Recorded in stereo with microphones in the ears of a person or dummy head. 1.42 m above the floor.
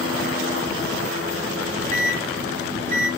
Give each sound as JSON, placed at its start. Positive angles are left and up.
{"t": 1.6, "sound": "a microwave", "side_deg": -65, "distance_m": 1.0}